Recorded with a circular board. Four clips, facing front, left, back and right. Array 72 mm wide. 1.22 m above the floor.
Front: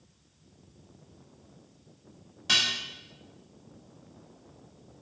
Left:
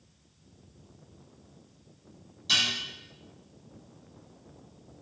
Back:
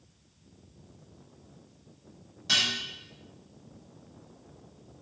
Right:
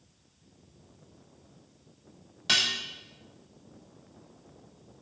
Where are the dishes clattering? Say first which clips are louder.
Right 1 dB, front 1 dB; 70° right, 0.8 m.